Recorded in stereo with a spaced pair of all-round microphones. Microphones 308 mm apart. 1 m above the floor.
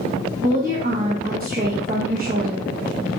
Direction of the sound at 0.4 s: 30° right (ahead or behind).